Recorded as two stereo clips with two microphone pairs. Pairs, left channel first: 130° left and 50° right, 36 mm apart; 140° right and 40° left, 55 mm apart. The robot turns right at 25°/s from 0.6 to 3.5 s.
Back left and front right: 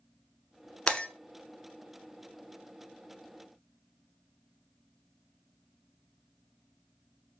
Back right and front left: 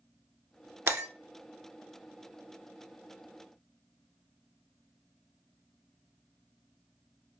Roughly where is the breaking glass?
Ahead left.